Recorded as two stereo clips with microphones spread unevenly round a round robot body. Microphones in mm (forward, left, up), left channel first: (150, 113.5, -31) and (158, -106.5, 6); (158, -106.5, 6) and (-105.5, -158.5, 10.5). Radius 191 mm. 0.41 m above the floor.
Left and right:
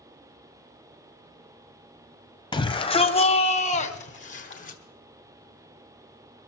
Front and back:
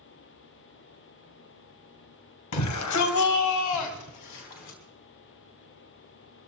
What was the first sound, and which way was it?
A shout, 35° left.